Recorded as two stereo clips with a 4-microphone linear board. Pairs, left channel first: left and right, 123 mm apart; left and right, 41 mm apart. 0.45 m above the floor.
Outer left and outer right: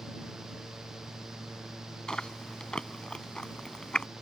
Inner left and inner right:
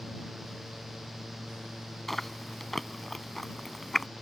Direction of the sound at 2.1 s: 5° left (ahead or behind).